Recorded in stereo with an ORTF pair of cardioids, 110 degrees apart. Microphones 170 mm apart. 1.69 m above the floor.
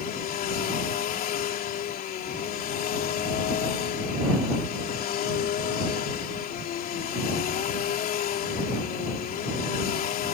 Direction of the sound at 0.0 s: 65° left.